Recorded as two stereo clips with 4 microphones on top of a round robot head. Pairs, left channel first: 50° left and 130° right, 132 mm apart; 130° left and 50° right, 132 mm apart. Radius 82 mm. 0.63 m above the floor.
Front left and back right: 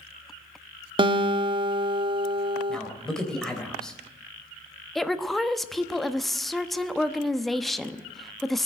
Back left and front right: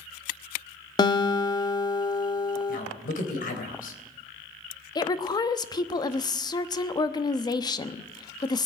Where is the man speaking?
135° left, 3.5 m.